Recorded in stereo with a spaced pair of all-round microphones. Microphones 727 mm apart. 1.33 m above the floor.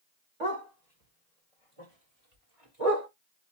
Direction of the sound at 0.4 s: 60° right (ahead or behind).